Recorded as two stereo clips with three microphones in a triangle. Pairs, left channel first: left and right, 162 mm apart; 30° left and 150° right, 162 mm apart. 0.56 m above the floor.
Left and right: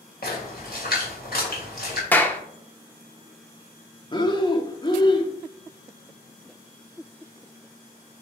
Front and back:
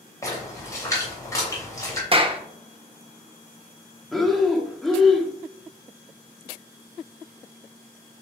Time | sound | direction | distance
0.2 | a splash | 100° left | 3 m
2.1 | a clap | 165° left | 0.8 m
4.1 | breathing | 120° left | 0.8 m